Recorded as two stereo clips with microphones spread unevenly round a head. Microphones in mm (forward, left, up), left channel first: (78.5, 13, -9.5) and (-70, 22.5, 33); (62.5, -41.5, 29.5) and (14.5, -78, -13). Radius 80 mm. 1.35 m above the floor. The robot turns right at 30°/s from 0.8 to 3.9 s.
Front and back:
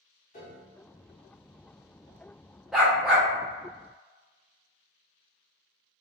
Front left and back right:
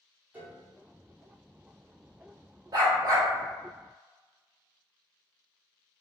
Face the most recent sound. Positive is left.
turn(degrees=-150)